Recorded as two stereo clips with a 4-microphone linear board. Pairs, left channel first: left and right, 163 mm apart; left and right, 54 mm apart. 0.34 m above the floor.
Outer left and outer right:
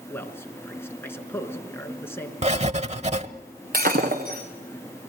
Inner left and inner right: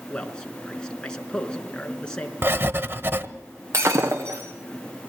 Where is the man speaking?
15° left (ahead or behind), 4 m.